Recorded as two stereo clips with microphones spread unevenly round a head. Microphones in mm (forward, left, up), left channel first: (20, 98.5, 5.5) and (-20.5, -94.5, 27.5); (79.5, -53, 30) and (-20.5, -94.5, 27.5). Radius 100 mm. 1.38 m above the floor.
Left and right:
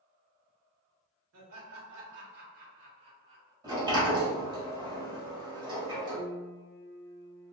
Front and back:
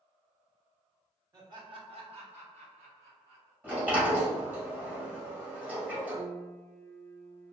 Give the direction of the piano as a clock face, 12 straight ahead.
8 o'clock.